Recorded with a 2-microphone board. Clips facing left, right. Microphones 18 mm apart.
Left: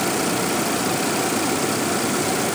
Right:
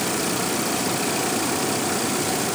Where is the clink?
No clink in this recording.